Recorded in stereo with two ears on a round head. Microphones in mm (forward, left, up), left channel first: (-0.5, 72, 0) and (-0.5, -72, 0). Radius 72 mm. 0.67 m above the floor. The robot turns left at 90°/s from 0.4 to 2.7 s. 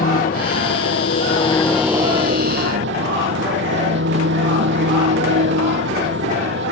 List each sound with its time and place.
0.0 s an engine running: 125° left; by 6.7 s 80° right